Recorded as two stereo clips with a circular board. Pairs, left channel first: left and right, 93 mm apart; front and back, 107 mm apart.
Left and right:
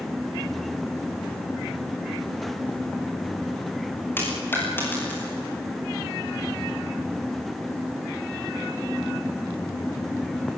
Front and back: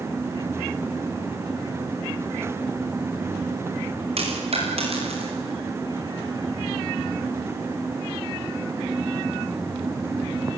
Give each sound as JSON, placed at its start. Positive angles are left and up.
{"t": 4.2, "sound": "a dropped coin", "azimuth_deg": 155, "distance_m": 9.5}